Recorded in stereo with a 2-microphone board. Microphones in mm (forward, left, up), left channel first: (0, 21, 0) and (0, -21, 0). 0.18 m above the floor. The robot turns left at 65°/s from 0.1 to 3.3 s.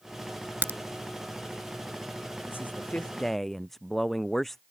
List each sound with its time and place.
0.6 s a crack: 65° right (ahead or behind); by 0.8 s 55° right (ahead or behind)
2.5 s a man speaking: 65° left; by 4.6 s 10° left